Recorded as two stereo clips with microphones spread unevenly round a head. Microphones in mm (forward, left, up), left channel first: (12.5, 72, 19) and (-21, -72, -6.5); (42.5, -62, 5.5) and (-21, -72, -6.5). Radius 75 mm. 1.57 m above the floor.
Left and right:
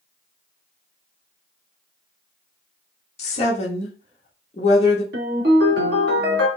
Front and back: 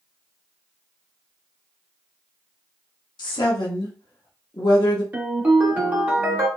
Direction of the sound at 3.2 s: 30° left.